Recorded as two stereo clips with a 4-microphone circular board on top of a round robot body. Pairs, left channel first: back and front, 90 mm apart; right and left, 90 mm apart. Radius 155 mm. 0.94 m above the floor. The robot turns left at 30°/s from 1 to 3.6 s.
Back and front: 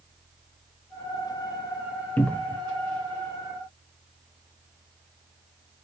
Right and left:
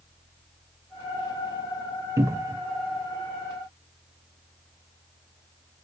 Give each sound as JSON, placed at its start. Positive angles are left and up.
{"t": 2.2, "sound": "a cupboard door", "azimuth_deg": 120, "distance_m": 0.6}